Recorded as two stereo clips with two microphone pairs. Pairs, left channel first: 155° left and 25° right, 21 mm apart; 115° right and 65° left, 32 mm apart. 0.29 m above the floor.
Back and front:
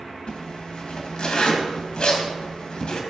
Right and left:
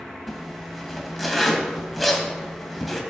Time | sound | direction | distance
0.3 | a zipper | 160° left | 2 m